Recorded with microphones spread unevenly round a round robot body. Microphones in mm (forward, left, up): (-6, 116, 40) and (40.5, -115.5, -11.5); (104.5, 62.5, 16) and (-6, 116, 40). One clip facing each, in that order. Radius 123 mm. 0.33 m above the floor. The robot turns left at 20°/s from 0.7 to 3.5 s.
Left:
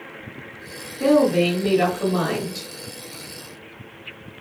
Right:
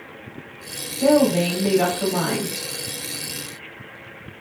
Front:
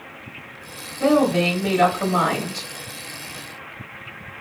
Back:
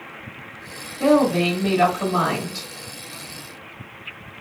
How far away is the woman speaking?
About 1.6 m.